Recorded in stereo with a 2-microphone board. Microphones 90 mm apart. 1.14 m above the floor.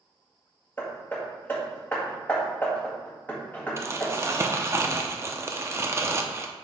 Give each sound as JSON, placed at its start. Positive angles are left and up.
{"t": 0.8, "sound": "hammering", "side_deg": 20, "distance_m": 1.9}
{"t": 3.8, "sound": "crumpling", "side_deg": -30, "distance_m": 0.7}